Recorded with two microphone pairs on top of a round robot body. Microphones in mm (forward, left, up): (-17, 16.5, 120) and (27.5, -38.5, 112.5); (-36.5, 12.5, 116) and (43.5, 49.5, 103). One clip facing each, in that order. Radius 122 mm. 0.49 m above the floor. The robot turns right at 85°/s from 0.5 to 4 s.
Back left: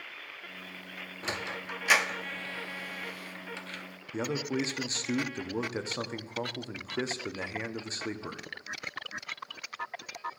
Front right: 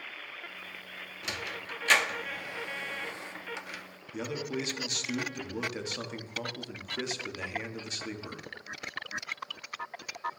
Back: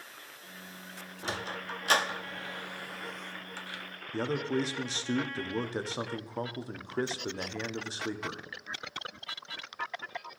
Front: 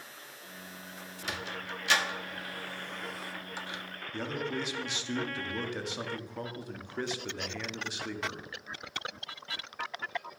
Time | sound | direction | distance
1.2 | a sliding door | 155° left | 0.6 m
4.1 | a man speaking | 165° left | 0.8 m